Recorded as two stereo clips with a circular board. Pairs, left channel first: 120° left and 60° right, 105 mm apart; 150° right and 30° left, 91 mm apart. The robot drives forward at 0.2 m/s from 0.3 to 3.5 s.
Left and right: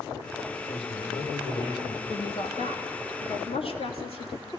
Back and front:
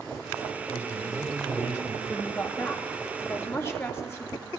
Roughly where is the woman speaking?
Behind left.